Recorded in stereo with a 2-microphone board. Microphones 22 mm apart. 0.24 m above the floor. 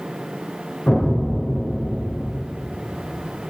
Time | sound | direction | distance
0.9 | an explosion | 55° left (ahead or behind) | 2.5 m